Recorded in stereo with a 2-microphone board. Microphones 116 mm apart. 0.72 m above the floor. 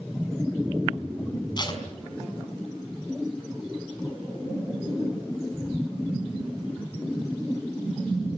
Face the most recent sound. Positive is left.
turn(degrees=40)  # may be behind; listen again after turning